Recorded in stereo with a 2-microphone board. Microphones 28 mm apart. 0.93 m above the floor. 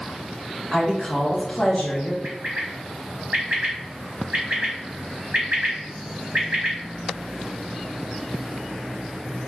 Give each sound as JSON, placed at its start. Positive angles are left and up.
{"t": 0.7, "sound": "a woman speaking", "side_deg": -15, "distance_m": 1.3}
{"t": 2.2, "sound": "a bird", "side_deg": -60, "distance_m": 1.1}